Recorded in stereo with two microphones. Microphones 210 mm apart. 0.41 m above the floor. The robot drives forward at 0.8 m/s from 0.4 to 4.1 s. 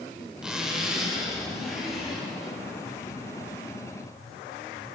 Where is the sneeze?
No sneeze in this recording.